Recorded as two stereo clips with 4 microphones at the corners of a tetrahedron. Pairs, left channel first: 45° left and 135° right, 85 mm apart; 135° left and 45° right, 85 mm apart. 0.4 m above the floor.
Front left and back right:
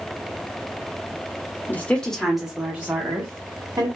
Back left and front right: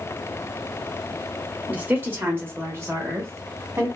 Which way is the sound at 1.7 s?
5° left.